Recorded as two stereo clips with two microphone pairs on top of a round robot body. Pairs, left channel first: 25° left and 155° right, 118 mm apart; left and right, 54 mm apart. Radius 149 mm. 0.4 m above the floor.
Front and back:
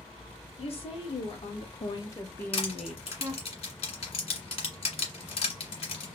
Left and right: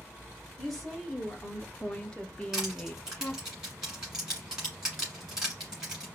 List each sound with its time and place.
0.6 s a woman speaking: straight ahead, 1.7 m; by 3.5 s 145° left, 1.1 m
2.5 s crushing: 10° right, 1.7 m